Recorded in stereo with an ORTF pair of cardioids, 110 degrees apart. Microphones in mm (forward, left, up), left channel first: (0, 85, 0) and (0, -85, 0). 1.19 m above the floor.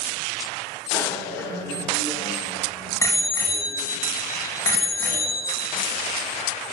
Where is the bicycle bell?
10° left, 3 m; by 5.8 s 20° left, 6 m.